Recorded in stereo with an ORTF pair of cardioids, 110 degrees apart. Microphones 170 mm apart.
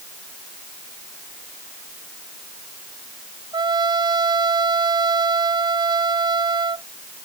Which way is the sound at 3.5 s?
25° right.